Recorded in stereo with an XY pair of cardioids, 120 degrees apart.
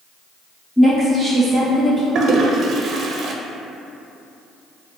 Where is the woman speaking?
5° left, 0.6 m.